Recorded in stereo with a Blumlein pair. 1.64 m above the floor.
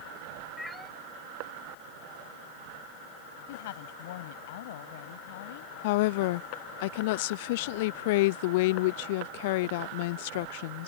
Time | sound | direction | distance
0.6 | a cat meowing | 5° left | ?
3.5 | a woman speaking | 55° left | ?
5.8 | a woman speaking | 50° left | ?